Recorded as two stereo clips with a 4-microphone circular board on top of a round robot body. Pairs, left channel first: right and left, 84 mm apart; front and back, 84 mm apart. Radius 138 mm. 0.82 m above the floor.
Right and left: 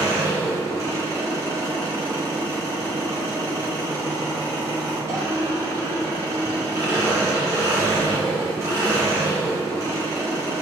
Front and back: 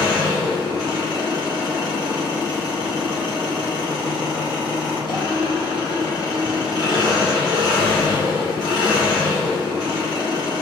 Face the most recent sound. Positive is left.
turn(degrees=35)